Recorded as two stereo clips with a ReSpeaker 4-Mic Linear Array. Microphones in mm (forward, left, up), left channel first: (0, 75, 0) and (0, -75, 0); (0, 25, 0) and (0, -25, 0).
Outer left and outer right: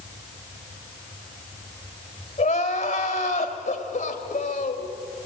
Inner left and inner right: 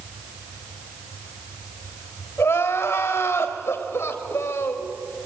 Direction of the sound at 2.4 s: 65° left (ahead or behind).